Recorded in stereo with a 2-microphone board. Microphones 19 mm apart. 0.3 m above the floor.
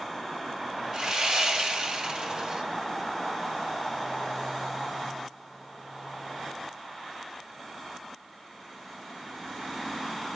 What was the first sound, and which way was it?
Sawing, 40° right (ahead or behind).